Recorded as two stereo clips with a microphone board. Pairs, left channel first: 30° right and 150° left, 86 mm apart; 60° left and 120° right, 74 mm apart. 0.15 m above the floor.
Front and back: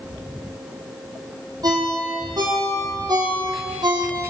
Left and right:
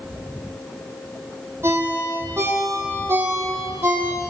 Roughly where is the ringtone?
Behind.